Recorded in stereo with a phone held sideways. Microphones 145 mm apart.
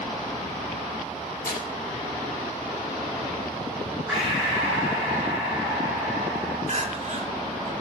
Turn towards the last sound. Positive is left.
turn(degrees=-55)  # may be behind; listen again after turning